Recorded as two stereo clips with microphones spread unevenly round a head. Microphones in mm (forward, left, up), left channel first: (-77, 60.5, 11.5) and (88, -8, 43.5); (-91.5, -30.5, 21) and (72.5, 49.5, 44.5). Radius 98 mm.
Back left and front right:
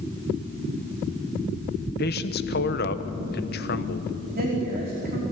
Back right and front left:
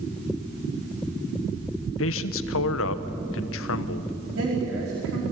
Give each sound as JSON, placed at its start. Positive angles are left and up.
{"t": 2.0, "sound": "a man speaking", "azimuth_deg": -160, "distance_m": 1.2}
{"t": 4.3, "sound": "a woman speaking", "azimuth_deg": 15, "distance_m": 5.0}